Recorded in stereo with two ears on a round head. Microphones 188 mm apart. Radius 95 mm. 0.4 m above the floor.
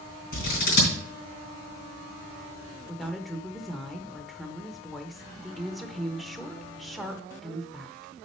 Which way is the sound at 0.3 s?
50° left (ahead or behind).